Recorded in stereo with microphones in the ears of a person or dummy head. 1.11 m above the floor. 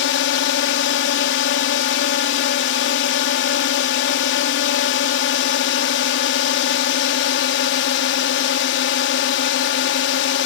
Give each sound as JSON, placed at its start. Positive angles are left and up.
{"t": 0.0, "sound": "a drone", "side_deg": 50}